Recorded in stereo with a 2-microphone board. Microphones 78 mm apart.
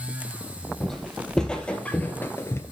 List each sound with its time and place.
0.8 s footsteps: 5° left (ahead or behind), 2.5 m; by 2.6 s 35° left (ahead or behind), 1.1 m